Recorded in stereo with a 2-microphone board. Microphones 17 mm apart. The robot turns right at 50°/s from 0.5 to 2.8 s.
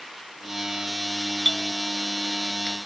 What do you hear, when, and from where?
1.2 s a doorbell: 10° left (ahead or behind); by 2.8 s 85° left